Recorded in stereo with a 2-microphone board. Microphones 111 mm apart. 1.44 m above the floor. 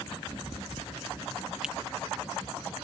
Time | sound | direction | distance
1.6 | a finger snap | 5° right (ahead or behind) | ?